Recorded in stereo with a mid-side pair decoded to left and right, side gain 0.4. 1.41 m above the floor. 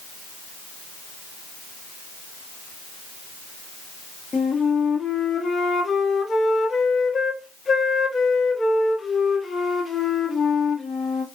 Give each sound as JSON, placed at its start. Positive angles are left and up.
{"t": 4.3, "sound": "a flute", "azimuth_deg": 40, "distance_m": 0.8}